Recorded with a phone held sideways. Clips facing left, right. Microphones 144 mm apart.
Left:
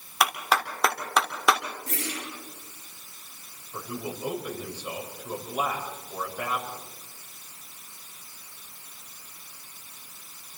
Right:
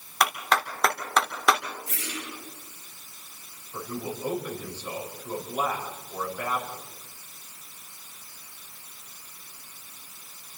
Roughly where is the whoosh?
Left.